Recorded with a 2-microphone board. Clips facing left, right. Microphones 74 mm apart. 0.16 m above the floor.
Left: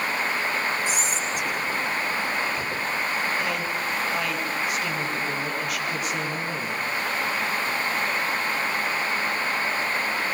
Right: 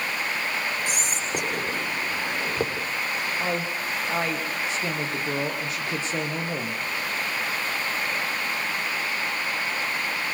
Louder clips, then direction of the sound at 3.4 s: Left 1 dB; 30° right (ahead or behind).